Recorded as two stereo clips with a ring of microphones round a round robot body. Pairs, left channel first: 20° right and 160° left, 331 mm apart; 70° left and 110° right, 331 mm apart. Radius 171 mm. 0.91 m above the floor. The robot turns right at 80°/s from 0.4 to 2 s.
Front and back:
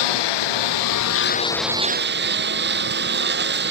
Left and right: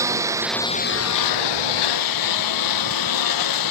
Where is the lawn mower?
30° right; by 3.7 s 95° left.